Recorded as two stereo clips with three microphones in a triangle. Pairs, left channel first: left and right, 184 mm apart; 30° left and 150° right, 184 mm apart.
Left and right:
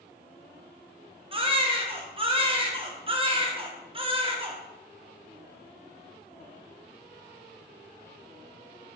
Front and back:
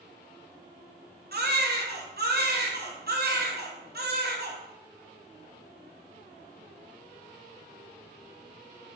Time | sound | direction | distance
1.3 | a baby crying | 150° right | 0.6 m